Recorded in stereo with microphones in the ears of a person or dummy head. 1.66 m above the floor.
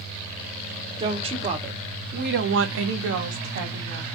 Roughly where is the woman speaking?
Right.